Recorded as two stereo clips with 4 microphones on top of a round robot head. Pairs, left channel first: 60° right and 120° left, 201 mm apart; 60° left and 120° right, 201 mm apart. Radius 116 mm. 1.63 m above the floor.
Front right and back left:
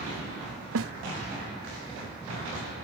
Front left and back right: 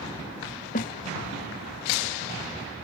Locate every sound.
0.8 s a snare drum: 110° left